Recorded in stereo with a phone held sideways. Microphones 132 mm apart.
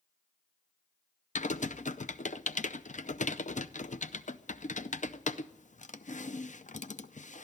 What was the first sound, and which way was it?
Typing on a keyboard, 70° left (ahead or behind).